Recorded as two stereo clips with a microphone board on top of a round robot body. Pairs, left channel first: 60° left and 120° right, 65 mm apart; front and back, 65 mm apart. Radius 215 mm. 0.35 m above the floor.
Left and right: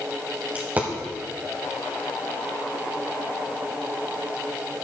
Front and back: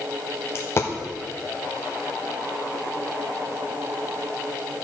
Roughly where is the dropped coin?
Ahead right.